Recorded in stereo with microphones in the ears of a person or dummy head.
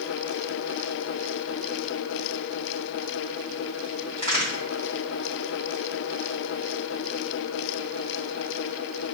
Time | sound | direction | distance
4.2 | a crack | 30° left (ahead or behind) | 1.1 m